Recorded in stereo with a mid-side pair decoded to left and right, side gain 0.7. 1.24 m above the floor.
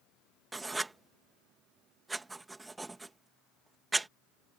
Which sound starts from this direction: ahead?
Writing, at 0.5 s.